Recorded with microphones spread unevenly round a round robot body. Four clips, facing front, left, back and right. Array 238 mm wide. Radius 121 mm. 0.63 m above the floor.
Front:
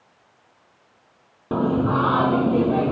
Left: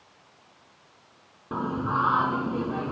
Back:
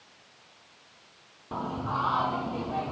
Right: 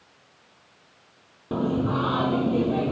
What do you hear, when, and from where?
1.5 s singing: 20° right